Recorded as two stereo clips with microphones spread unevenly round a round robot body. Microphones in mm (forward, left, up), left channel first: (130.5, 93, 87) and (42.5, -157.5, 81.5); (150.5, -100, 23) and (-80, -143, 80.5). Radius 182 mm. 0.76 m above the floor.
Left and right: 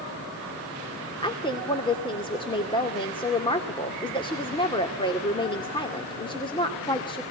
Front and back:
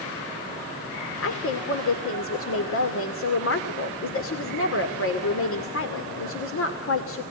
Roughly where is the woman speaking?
Ahead.